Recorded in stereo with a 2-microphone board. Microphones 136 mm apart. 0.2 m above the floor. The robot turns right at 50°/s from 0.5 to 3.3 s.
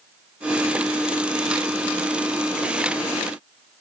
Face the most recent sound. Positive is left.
No sound to turn to.